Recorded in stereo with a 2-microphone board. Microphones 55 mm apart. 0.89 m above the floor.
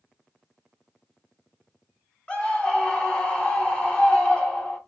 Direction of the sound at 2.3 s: 20° left (ahead or behind).